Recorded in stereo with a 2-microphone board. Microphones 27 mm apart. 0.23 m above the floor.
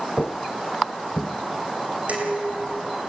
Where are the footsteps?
60° left (ahead or behind), 1.0 m.